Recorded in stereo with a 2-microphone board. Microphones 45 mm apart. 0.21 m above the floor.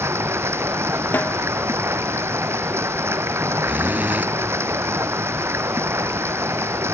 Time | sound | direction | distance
0.0 | running water | 85° right | ?
1.1 | a snare drum | 45° left (ahead or behind) | ?
3.6 | a zipper | 40° right (ahead or behind) | ?